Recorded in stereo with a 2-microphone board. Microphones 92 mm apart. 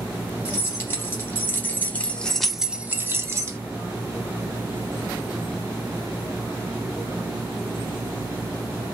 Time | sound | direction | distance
0.5 | keys jangling | 30° left (ahead or behind) | 2 m